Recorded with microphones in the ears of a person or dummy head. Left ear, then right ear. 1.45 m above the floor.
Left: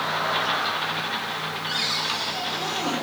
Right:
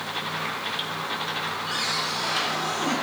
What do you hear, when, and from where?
1.7 s a cupboard door: 10° left (ahead or behind), 3.5 m